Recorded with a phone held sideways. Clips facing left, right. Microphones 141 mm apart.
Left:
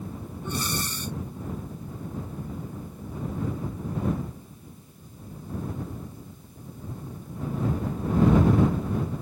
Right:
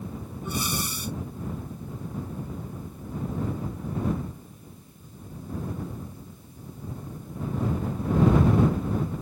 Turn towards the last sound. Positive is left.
turn(degrees=-10)  # may be behind; listen again after turning